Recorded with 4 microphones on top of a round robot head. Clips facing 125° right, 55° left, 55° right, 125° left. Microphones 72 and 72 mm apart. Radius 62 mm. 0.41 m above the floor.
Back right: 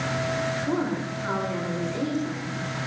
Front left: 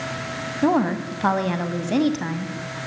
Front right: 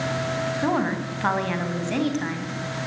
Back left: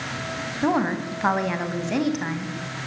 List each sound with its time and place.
0.6 s a woman speaking: 45° left, 3 m